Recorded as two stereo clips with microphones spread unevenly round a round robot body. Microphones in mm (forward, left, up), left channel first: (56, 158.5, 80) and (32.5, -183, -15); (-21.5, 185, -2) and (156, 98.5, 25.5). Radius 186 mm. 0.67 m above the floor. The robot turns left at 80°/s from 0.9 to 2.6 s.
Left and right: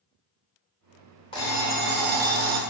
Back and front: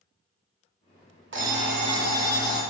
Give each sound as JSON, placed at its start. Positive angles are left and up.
{"t": 1.3, "sound": "an alarm clock", "azimuth_deg": 10, "distance_m": 0.7}